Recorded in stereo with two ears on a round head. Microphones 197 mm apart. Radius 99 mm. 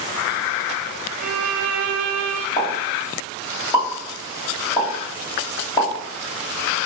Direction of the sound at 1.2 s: 70° right (ahead or behind).